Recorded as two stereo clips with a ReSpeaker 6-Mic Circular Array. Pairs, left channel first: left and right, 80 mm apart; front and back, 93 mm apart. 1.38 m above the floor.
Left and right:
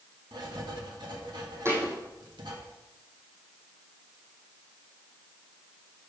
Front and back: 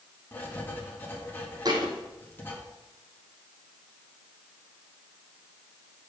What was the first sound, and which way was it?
Writing, 65° right.